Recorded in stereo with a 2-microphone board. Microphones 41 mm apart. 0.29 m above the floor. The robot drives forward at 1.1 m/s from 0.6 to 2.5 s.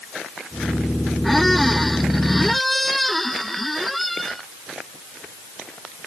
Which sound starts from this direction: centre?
A squeak, at 1.2 s.